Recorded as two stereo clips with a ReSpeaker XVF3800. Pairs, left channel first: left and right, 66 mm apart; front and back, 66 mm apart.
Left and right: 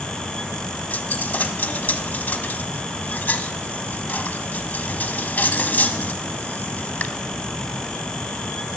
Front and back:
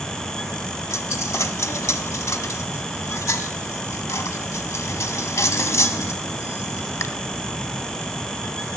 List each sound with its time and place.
0.9 s a dropped coin: 30° left, 0.8 m